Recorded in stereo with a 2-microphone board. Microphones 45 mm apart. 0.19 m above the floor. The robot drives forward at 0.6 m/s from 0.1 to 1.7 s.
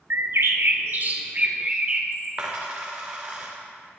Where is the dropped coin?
30° right (ahead or behind), 1.9 m.